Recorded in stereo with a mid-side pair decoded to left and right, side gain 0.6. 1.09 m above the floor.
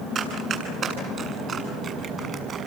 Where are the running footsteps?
45° right, 9 m.